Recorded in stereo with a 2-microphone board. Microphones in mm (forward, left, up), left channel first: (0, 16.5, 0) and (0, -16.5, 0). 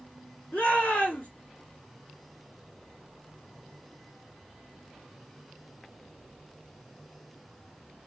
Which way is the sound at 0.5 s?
80° left.